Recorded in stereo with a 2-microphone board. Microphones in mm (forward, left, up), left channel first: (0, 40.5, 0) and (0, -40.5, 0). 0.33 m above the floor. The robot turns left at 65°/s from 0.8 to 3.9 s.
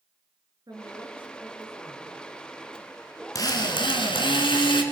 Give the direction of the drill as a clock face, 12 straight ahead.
8 o'clock.